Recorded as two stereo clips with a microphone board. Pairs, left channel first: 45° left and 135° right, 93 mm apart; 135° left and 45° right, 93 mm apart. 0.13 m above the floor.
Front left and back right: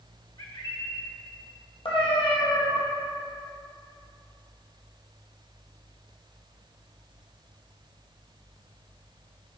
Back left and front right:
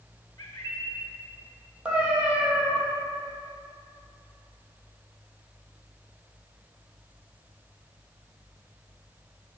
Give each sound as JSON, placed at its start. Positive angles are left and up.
{"t": 0.4, "sound": "a bird", "azimuth_deg": 75, "distance_m": 1.1}
{"t": 1.9, "sound": "a cat meowing", "azimuth_deg": 35, "distance_m": 1.4}